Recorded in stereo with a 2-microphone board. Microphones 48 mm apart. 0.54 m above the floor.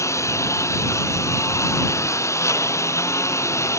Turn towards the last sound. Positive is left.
turn(degrees=80)